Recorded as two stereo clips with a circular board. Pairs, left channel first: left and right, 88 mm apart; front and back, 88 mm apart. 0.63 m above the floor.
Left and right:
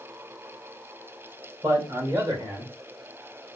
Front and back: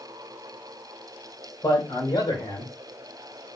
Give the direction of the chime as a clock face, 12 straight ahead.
No chime in this recording.